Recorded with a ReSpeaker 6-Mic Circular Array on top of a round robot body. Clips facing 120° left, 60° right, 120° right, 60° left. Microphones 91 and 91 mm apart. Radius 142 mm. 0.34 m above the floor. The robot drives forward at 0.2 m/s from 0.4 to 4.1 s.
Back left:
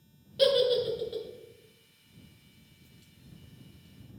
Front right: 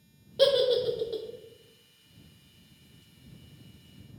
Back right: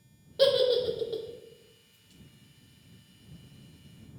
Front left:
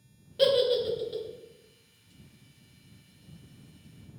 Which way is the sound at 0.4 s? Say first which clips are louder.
Front right 1 dB, even; 70° right.